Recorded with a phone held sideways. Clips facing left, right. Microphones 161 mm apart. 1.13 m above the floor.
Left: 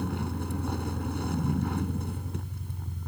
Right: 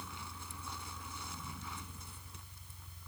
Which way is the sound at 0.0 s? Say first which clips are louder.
Left 18 dB; 60° left (ahead or behind).